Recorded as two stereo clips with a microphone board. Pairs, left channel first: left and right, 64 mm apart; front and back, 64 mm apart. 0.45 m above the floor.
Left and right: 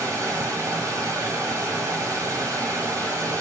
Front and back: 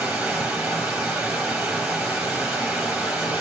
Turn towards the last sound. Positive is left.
turn(degrees=-120)